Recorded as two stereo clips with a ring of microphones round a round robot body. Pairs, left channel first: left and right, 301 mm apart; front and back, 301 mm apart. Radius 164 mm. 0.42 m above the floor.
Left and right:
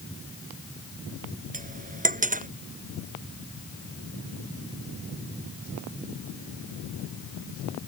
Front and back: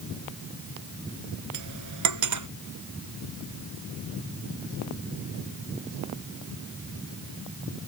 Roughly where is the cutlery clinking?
Behind right.